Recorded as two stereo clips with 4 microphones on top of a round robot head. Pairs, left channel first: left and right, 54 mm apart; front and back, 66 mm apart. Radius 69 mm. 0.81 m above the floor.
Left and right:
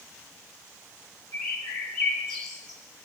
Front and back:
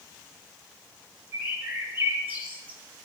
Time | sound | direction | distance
1.3 | a bird | 115° left | 4.5 m